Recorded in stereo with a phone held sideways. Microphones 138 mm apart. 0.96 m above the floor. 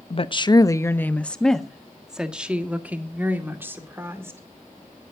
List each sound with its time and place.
0.1 s a woman speaking: 45° left (ahead or behind), 0.7 m; by 4.4 s 15° right (ahead or behind), 2.5 m